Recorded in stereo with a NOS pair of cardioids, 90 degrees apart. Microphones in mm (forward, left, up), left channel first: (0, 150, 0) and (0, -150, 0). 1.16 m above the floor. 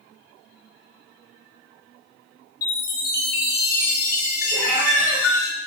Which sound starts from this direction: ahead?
A cat meowing, at 4.5 s.